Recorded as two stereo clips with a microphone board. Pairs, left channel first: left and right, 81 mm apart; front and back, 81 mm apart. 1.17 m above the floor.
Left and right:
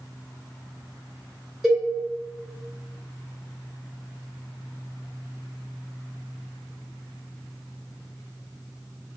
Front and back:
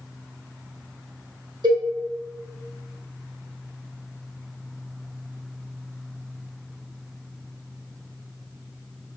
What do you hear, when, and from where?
1.6 s a cowbell: 175° right, 1.0 m